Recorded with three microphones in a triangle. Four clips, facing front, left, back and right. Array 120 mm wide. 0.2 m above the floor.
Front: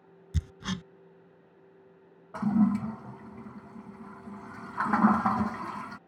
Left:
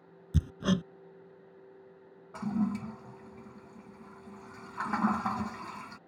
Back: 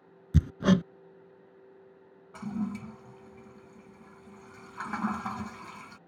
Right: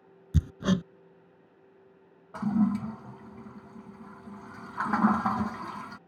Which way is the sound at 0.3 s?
175° right.